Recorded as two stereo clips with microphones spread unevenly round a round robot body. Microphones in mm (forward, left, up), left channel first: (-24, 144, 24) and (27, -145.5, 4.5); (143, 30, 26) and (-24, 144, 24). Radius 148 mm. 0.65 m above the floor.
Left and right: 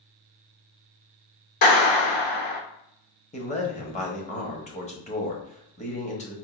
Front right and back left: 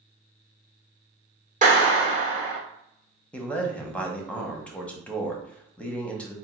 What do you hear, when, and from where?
1.6 s a clap: 95° left, 1.5 m
3.3 s a man speaking: 45° left, 1.0 m